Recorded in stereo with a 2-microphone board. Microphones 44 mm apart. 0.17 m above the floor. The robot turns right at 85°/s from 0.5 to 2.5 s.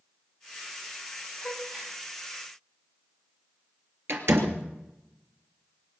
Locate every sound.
1.4 s a gasp: 5° left (ahead or behind), 8.5 m; by 2.0 s 45° right (ahead or behind), 8.5 m
4.1 s a door slam: 65° right (ahead or behind), 3 m